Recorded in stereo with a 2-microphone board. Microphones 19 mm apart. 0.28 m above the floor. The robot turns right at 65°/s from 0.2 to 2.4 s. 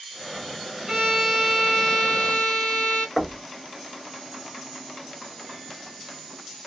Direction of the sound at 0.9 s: 50° right.